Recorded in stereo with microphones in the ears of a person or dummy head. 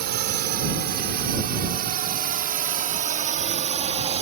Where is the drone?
55° right (ahead or behind); by 4.2 s 35° right (ahead or behind).